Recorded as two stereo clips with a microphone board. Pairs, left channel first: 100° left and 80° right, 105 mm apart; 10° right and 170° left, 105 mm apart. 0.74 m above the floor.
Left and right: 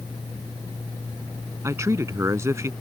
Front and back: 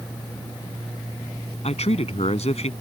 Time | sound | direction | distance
1.6 | a man speaking | 15° right | ?